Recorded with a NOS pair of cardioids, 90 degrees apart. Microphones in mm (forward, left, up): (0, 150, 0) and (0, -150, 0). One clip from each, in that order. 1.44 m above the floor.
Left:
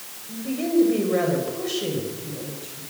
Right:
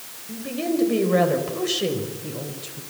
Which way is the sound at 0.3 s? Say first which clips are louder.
Left 2 dB; 25° right.